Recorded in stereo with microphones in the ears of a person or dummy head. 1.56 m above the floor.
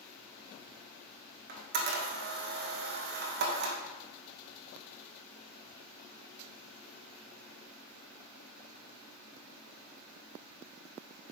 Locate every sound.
1.5 s a camera shutter: 65° right (ahead or behind), 1.7 m